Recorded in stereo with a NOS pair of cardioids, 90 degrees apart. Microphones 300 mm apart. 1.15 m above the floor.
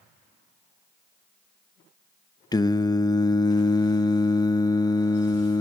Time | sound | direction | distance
2.5 | singing | 15° left | 0.8 m